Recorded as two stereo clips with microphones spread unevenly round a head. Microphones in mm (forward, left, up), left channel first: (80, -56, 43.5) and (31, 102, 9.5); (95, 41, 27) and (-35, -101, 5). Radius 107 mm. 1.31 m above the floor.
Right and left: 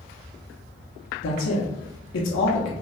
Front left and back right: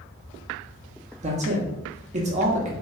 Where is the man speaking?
80° right, 0.7 m.